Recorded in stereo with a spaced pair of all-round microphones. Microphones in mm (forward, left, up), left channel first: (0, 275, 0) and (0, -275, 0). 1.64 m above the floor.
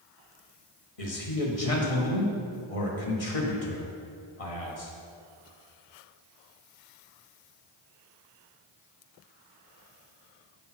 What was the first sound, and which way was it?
A man speaking, 80° left.